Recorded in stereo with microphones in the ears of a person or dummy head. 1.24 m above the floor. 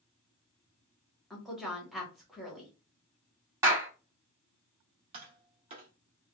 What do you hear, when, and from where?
1.3 s a woman speaking: centre (ahead or behind), 1.0 m
3.6 s a clap: 15° right (ahead or behind), 1.1 m
5.1 s tapping: 40° right (ahead or behind), 0.7 m